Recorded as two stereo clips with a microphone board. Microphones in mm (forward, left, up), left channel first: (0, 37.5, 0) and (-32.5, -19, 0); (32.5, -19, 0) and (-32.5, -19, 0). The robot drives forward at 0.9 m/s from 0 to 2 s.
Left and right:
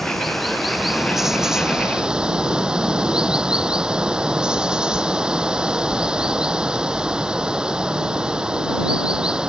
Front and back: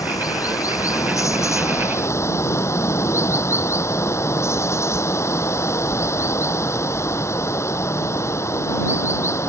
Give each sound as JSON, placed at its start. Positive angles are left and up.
{"t": 0.0, "sound": "running water", "azimuth_deg": -30}